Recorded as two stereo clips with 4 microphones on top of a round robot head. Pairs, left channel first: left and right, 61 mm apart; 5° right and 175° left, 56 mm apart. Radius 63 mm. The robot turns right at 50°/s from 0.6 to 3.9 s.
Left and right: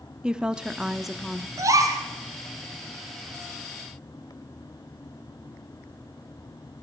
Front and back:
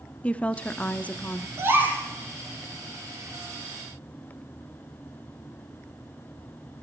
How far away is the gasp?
About 3 m.